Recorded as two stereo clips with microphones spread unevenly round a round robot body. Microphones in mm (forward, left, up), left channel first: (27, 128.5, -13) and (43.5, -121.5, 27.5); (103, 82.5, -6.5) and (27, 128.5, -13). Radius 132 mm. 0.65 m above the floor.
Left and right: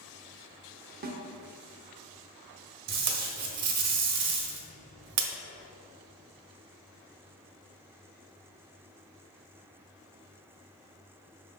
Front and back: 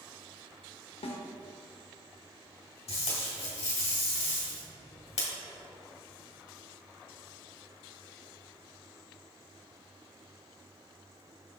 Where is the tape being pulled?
65° right, 1.3 m.